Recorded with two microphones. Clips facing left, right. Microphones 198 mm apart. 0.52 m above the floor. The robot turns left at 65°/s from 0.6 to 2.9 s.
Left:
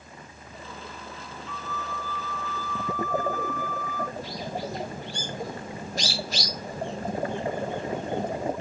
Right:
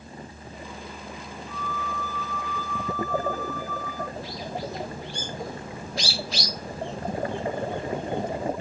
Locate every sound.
1.5 s a flute: 90° left, 4 m; by 4.0 s 5° right, 4 m
4.1 s a bird: 50° left (ahead or behind), 4 m